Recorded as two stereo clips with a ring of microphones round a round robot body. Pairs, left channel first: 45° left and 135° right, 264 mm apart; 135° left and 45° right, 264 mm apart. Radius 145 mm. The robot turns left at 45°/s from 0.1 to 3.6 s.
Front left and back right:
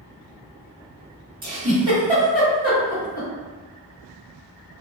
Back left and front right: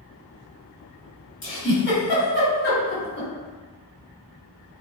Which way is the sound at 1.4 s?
175° left.